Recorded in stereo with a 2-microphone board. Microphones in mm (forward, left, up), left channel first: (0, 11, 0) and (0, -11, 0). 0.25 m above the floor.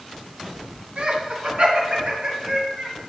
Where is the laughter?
60° right (ahead or behind), 2.0 m.